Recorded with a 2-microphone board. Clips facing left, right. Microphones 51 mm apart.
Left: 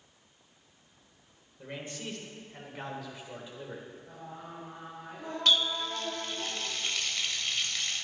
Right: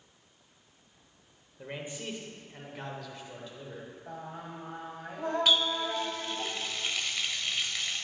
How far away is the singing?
About 1.7 m.